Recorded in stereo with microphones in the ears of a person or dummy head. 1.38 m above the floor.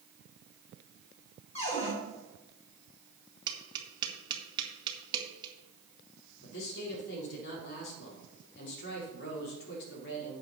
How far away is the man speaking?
About 4 m.